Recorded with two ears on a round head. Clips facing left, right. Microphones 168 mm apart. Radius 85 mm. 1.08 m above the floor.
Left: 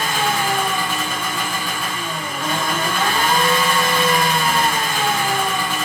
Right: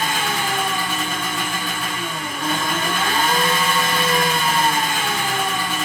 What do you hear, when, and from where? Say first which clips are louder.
0.0 s an engine running: left 3 dB; 60° left (ahead or behind), 2 m